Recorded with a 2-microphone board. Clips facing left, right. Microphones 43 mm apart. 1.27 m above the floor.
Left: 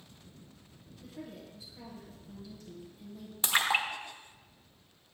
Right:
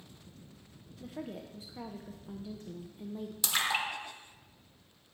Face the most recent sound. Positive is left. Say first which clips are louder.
# left 3 dB
turn(degrees=30)  # may be behind; listen again after turning